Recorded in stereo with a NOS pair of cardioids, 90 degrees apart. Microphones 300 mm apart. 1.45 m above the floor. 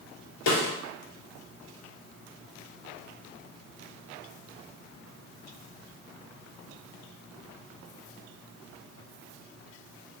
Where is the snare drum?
65° left, 1.4 m.